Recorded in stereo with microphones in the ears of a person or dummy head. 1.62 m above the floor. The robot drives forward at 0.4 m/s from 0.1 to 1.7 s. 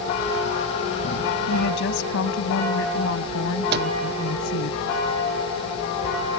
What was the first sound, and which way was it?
A woman speaking, 65° left (ahead or behind).